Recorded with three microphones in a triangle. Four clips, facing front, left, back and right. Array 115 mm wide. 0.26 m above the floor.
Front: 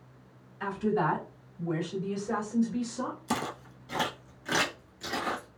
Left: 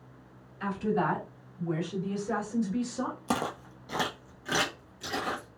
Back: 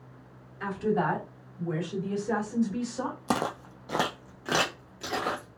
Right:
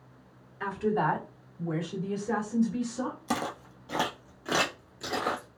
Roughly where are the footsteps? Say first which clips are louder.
Left 1 dB, back 4 dB; behind.